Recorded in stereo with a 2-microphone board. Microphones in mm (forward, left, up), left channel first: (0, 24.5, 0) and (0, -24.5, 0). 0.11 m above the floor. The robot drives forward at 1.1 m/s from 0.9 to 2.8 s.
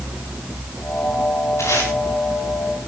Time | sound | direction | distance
1.6 | tape being pulled | 80° left | 9.5 m